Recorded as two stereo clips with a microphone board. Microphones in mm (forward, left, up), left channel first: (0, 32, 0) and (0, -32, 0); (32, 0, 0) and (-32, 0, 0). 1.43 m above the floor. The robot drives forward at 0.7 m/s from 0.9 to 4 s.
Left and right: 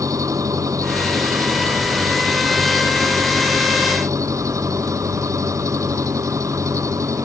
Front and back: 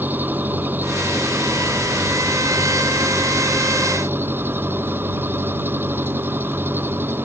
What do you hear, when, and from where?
0.0 s an engine running: 120° right; by 7.3 s 125° right